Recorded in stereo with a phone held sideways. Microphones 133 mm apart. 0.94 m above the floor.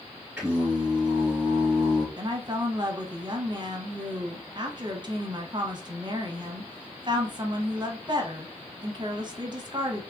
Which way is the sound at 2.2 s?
35° right (ahead or behind).